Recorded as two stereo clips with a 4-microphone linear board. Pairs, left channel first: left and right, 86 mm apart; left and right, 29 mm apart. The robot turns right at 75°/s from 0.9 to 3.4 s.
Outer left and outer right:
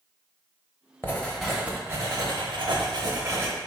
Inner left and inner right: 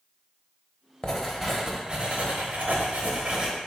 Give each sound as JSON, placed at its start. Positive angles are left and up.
{"t": 1.0, "sound": "writing", "azimuth_deg": 150, "distance_m": 0.6}